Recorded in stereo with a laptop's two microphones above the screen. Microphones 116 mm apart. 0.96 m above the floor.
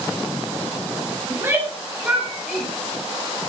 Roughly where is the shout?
Right.